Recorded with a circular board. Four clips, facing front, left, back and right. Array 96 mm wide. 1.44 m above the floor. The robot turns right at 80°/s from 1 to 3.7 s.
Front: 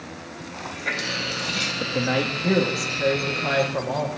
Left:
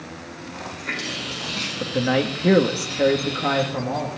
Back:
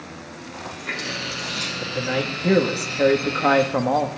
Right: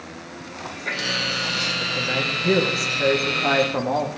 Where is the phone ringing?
No phone ringing in this recording.